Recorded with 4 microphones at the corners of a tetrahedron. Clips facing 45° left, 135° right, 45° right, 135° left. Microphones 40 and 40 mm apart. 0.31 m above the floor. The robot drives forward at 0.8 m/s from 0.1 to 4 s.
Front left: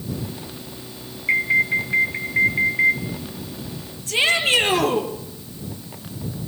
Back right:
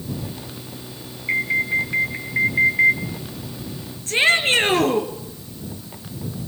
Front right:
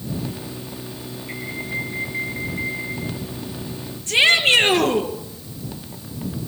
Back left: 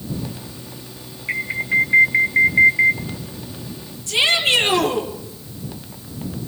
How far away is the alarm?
About 1.9 m.